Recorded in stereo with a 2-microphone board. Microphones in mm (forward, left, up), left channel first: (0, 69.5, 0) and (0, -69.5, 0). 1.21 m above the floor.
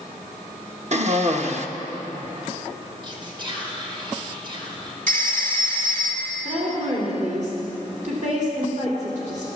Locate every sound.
0.9 s a cough: 55° right (ahead or behind), 1.3 m
3.0 s whispering: 35° right (ahead or behind), 4 m
5.1 s a phone ringing: 65° right (ahead or behind), 2 m
6.5 s a woman speaking: 60° right (ahead or behind), 3.5 m